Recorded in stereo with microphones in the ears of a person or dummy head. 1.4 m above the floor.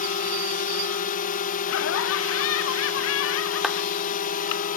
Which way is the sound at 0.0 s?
40° left (ahead or behind).